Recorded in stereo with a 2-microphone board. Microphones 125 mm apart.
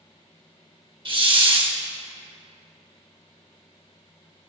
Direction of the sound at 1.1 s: 45° right (ahead or behind).